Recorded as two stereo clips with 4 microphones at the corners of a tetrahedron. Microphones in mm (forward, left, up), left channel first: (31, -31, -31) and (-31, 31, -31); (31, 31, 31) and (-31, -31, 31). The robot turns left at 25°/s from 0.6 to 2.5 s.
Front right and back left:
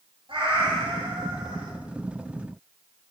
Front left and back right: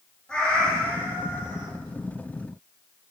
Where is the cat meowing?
125° left, 2.0 m; by 1.7 s 95° left, 2.0 m.